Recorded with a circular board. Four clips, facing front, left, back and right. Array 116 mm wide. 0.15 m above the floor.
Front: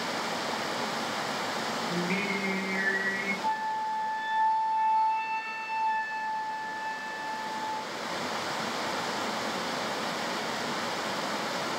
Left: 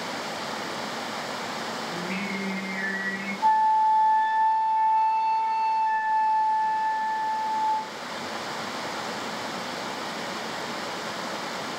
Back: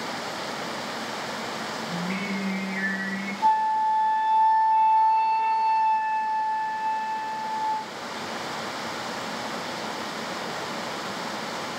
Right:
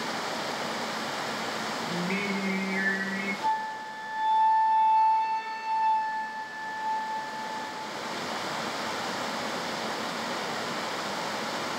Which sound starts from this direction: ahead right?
Singing, at 1.9 s.